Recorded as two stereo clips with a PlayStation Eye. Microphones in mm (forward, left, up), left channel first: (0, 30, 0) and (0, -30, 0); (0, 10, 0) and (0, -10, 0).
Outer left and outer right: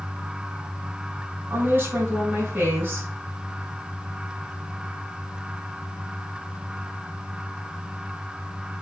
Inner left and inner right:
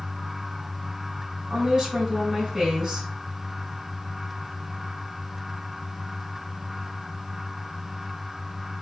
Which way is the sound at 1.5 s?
35° right (ahead or behind).